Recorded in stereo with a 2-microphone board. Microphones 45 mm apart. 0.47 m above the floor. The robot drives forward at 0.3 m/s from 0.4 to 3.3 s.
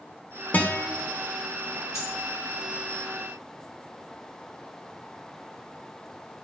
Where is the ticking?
No ticking in this recording.